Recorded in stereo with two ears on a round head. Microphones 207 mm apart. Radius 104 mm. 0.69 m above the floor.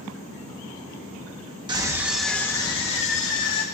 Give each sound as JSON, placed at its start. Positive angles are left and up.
{"t": 1.7, "sound": "a scream", "side_deg": -20, "distance_m": 1.1}